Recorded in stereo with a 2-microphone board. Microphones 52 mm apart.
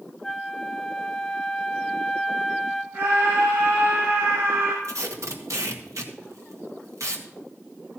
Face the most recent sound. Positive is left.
turn(degrees=-70)  # may be behind; listen again after turning